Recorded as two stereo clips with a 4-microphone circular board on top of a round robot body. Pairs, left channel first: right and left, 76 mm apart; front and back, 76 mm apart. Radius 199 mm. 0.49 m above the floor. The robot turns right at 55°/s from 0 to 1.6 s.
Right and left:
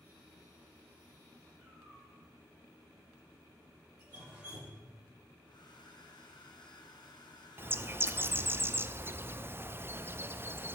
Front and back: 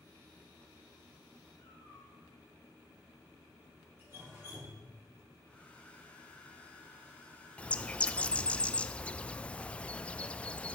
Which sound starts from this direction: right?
A hair dryer, at 5.5 s.